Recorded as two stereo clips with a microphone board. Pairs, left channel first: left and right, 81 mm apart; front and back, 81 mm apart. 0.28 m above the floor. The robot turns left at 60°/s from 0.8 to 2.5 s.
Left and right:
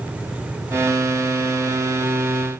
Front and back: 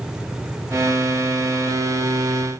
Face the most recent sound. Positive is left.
No sound to turn to.